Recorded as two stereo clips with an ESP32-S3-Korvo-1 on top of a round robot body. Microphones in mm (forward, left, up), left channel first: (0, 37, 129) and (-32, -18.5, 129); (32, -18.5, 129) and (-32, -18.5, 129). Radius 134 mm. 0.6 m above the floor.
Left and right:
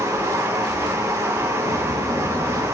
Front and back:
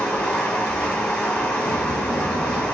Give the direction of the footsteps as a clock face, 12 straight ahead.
12 o'clock.